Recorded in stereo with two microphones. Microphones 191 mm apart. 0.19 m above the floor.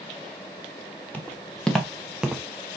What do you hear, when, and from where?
1.1 s footsteps: 5° left (ahead or behind), 2.5 m; by 2.4 s 10° right (ahead or behind), 1.0 m